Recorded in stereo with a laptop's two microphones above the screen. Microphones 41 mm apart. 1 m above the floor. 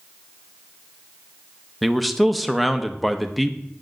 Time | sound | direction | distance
1.8 | a man speaking | centre (ahead or behind) | 0.8 m